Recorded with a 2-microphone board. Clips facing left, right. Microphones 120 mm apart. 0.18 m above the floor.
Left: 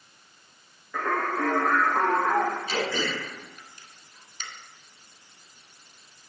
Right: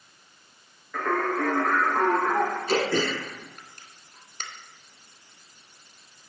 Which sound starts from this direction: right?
Throat clearing, at 2.7 s.